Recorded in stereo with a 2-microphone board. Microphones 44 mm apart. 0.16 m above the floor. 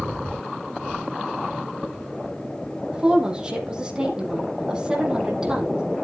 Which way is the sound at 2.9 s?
20° right (ahead or behind).